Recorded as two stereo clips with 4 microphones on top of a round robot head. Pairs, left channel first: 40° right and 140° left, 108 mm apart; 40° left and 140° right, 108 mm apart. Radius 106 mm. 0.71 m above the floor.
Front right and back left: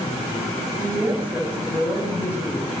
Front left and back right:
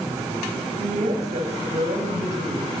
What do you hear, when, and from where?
0.8 s a woman speaking: 150° right, 5.5 m